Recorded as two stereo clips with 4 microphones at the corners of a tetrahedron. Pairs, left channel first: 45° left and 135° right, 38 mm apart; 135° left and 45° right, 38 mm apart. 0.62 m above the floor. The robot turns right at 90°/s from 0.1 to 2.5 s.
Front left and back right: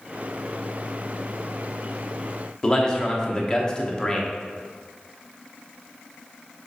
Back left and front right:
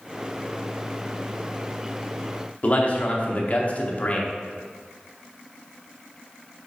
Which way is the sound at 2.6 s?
110° left.